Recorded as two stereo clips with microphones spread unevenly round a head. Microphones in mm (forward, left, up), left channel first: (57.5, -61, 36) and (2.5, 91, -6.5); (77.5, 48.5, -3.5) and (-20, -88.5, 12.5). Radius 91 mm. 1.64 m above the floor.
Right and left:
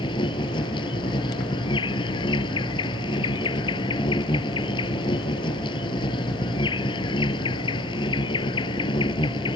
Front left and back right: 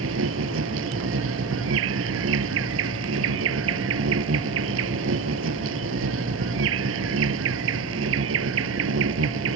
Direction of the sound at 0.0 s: 135° right.